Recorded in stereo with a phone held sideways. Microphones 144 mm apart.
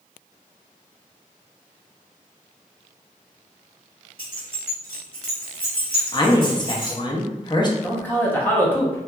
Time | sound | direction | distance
4.2 | keys jangling | 80° left | 1.3 m
6.1 | a woman speaking | 30° left (ahead or behind) | 0.5 m
7.8 | a man speaking | 10° left (ahead or behind) | 0.6 m